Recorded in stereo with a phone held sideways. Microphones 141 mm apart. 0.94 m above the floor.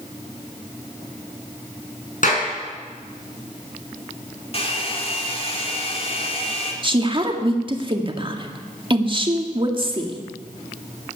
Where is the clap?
65° left (ahead or behind), 7 m.